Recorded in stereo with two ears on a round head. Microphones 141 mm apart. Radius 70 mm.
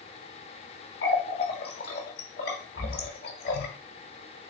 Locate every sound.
1.0 s a running tap: 70° left (ahead or behind), 1.1 m